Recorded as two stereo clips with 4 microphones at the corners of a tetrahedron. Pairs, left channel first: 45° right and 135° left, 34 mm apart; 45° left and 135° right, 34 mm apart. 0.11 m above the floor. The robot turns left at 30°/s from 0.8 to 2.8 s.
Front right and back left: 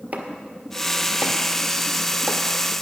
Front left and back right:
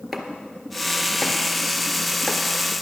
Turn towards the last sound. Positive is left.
turn(degrees=70)